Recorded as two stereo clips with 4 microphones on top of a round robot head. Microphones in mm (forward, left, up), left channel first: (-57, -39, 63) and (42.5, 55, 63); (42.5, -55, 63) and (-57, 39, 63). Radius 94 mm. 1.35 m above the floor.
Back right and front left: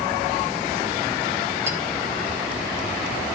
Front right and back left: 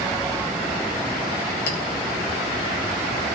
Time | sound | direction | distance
1.7 | a clink | 30° right | 1.7 m